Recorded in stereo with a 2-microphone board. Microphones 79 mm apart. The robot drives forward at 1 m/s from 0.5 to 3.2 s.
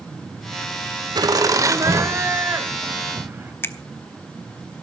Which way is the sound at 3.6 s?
30° left (ahead or behind).